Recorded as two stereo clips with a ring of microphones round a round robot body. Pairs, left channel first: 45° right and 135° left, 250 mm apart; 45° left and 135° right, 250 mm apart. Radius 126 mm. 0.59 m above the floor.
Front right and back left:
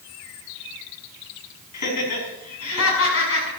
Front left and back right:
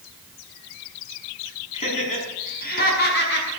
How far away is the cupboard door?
I don't hear a cupboard door.